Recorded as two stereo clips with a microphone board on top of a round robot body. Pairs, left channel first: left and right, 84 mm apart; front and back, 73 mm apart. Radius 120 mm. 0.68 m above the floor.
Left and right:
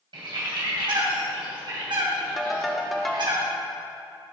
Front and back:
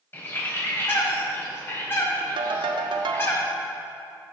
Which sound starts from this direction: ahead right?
A bird, at 0.1 s.